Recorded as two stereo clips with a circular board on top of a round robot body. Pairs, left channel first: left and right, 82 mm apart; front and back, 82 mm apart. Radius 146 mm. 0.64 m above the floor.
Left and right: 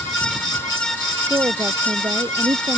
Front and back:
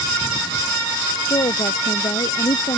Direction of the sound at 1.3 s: 35° right.